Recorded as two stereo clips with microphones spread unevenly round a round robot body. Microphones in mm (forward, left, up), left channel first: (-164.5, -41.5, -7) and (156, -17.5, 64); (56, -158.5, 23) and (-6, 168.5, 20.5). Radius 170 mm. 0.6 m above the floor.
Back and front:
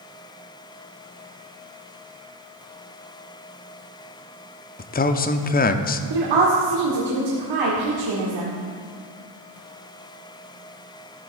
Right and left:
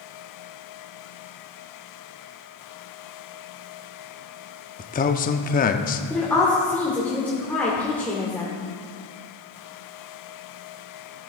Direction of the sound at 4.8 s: 140° right.